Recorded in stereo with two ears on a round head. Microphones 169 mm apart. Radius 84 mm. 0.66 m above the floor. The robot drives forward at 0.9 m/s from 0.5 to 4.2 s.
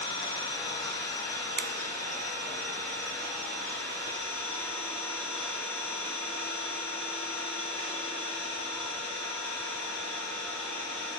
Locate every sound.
0.0 s an engine running: 25° left (ahead or behind), 2.5 m; by 11.2 s 10° left (ahead or behind), 5.5 m
1.6 s a finger snap: 55° right (ahead or behind), 0.7 m